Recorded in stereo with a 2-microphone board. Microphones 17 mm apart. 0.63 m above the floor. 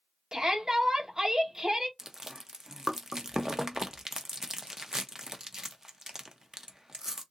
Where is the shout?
45° right (ahead or behind), 1.4 m.